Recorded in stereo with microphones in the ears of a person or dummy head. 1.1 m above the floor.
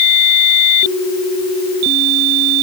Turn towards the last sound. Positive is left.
No sound to turn to.